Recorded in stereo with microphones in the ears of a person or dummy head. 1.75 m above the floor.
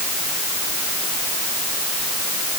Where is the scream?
No scream in this recording.